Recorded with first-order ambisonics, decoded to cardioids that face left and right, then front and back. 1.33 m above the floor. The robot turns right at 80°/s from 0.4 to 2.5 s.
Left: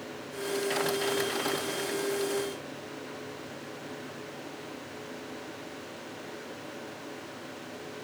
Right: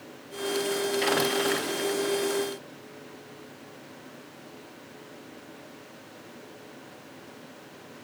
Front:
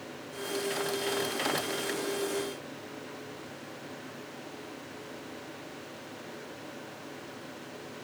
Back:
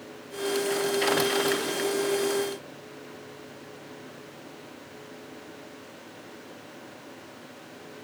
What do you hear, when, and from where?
Only background noise.